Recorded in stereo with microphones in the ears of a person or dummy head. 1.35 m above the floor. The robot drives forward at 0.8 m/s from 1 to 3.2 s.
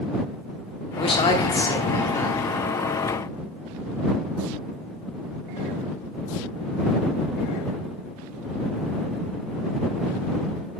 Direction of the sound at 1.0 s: 30° left (ahead or behind).